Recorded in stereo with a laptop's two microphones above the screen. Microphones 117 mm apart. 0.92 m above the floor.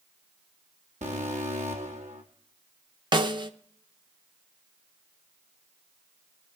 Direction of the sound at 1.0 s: 75° right (ahead or behind).